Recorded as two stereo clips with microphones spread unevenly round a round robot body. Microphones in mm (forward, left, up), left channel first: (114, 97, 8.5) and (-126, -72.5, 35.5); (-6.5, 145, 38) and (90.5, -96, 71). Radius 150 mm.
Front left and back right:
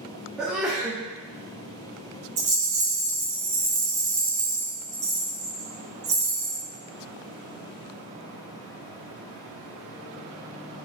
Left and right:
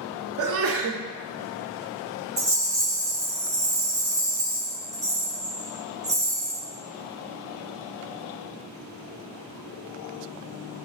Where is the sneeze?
50° right, 0.5 m.